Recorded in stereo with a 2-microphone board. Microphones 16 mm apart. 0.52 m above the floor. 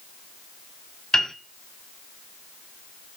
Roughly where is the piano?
Left.